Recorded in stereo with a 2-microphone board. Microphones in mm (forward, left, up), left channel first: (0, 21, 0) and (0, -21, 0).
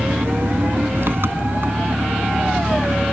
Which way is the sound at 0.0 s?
65° right (ahead or behind).